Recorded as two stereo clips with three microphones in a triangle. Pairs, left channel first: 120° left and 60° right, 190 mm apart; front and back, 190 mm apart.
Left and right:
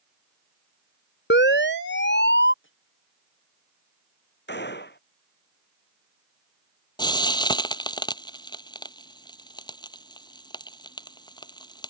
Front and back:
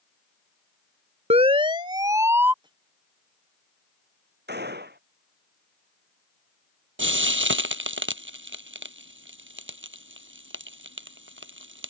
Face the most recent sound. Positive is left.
turn(degrees=-170)